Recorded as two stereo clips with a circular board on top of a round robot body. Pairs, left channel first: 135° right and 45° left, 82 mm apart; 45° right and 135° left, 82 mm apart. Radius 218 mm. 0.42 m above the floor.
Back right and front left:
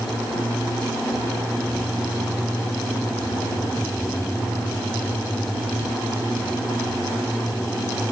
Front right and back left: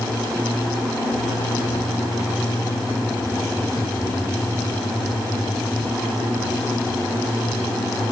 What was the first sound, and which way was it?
Only background noise.